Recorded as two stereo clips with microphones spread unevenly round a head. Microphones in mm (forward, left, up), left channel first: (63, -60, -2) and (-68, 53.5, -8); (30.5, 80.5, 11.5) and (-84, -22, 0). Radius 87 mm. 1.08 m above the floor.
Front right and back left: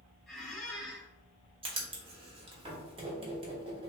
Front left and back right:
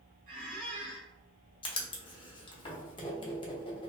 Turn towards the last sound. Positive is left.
turn(degrees=85)